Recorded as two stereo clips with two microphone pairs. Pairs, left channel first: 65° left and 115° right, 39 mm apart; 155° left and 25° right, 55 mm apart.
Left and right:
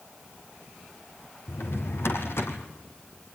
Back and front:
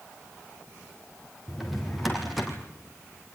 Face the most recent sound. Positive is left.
turn(degrees=65)